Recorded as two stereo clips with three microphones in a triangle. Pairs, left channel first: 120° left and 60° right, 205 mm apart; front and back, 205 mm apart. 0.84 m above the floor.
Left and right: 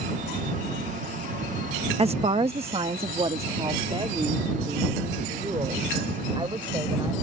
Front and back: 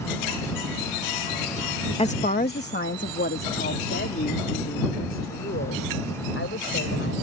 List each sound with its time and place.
2.0 s a woman speaking: 30° right; by 7.1 s 5° left